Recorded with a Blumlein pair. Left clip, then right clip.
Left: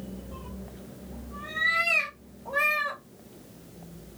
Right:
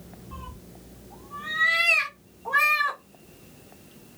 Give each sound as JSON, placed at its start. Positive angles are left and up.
{"t": 0.3, "sound": "a cat meowing", "azimuth_deg": -45, "distance_m": 1.0}